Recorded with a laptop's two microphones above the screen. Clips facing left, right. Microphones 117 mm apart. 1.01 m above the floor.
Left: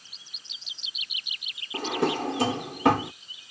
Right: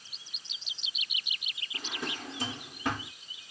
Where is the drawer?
85° left.